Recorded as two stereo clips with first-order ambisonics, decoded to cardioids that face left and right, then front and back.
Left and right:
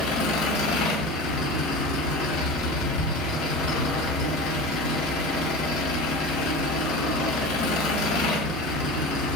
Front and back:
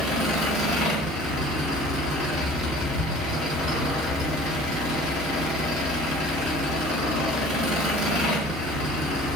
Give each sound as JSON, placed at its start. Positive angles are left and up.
{"t": 0.0, "sound": "an engine running", "azimuth_deg": 100, "distance_m": 6.0}